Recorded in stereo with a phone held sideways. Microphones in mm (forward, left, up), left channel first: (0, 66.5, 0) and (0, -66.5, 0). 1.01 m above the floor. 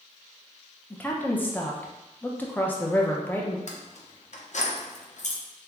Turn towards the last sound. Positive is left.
turn(degrees=60)  # may be behind; listen again after turning